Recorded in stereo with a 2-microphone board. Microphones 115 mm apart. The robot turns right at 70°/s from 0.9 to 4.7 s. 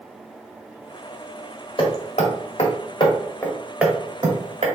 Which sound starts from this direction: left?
Hammering, at 1.8 s.